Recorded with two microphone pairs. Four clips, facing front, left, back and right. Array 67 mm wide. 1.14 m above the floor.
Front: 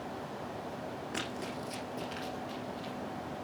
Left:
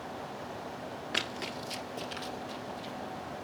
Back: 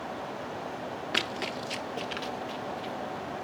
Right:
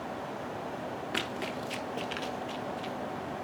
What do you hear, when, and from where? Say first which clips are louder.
1.1 s running footsteps: right 1 dB, back 7 dB; 170° left, 1.5 m; by 2.9 s 110° right, 2.5 m